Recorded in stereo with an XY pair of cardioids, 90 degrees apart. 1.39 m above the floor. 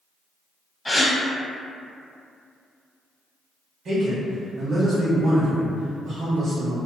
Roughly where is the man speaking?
Ahead right.